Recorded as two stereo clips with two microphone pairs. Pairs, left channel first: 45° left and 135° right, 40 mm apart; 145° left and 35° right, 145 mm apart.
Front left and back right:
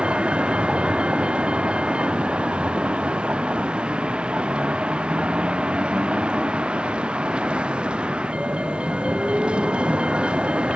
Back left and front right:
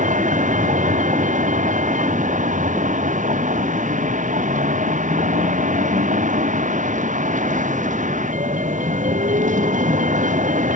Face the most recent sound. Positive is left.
turn(degrees=-65)